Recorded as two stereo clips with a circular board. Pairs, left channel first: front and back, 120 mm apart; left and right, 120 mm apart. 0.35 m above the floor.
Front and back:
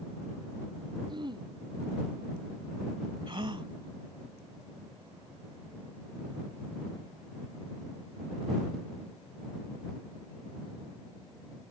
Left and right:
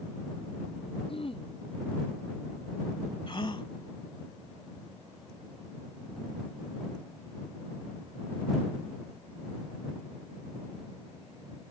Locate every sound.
1.1 s throat clearing: 130° left
3.3 s a gasp: 135° left